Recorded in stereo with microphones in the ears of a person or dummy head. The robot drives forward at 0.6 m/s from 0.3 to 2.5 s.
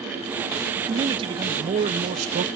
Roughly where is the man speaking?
Right.